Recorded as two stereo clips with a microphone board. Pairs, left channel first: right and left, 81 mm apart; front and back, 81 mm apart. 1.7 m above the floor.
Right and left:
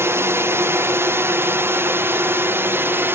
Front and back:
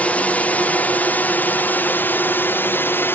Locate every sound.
0.0 s a drone: 60° left; by 3.2 s 45° left